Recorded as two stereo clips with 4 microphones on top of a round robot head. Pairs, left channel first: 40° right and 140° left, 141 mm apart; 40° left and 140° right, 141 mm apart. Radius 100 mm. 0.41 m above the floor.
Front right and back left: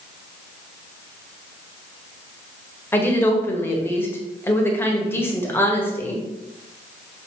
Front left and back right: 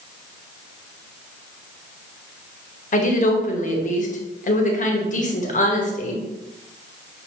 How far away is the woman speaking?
About 1.7 m.